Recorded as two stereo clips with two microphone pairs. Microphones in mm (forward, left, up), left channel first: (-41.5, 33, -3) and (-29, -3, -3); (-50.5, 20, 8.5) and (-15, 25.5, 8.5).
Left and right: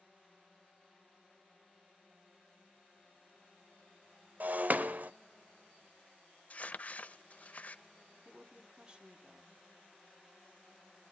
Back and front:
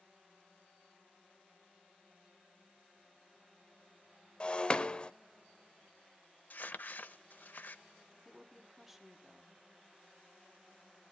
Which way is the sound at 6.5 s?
155° left.